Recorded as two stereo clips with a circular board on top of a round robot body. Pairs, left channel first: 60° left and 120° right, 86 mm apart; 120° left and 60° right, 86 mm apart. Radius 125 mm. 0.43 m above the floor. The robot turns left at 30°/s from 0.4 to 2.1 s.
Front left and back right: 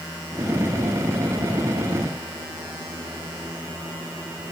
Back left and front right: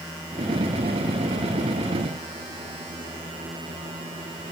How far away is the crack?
I don't hear a crack.